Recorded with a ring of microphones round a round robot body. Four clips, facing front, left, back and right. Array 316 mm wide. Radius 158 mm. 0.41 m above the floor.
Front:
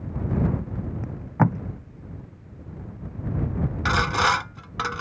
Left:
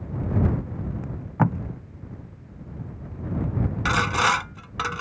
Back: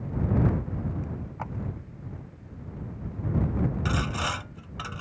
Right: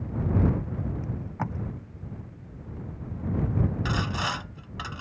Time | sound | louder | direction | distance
1.0 | tape being pulled | left 8 dB, front 12 dB | 30° left | ?
3.9 | sawing | left 8 dB, front 8 dB | 40° left | ?